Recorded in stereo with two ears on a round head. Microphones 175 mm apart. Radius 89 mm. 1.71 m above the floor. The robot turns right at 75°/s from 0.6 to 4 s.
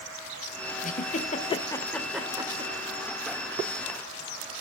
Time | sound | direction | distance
0.8 | a giggle | 40° left (ahead or behind) | 1.7 m